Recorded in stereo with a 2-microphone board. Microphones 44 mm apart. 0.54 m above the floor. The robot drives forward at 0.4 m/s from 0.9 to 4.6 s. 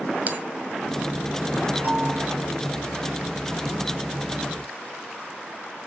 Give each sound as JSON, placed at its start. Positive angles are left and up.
{"t": 0.3, "sound": "a bell", "side_deg": -40, "distance_m": 1.9}
{"t": 1.8, "sound": "a bell", "side_deg": -35, "distance_m": 6.0}